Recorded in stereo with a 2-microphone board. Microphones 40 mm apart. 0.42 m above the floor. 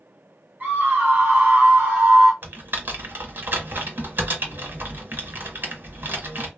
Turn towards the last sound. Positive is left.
turn(degrees=-55)  # may be behind; listen again after turning